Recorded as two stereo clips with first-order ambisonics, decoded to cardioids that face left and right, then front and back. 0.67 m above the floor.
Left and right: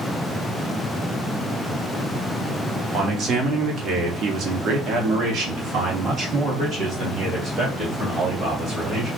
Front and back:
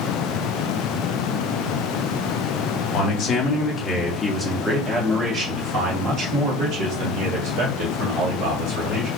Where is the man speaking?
40° right, 1.3 m; by 9.1 s 150° right, 3 m.